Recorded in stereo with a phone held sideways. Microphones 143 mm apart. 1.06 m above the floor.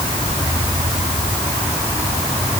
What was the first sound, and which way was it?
Only background noise.